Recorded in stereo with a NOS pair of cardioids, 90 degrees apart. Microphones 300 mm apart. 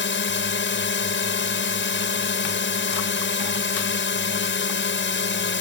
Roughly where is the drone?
Ahead left.